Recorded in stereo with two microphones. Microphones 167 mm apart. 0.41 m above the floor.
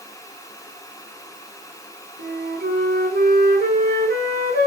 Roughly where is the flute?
Right.